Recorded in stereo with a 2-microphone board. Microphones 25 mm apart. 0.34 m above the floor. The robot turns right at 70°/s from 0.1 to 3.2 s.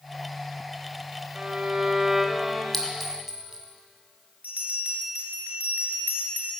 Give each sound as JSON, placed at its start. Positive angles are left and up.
{"t": 1.4, "sound": "a violin", "azimuth_deg": -95, "distance_m": 1.3}
{"t": 2.7, "sound": "a clink", "side_deg": 20, "distance_m": 1.5}
{"t": 4.4, "sound": "a bell", "side_deg": -75, "distance_m": 3.0}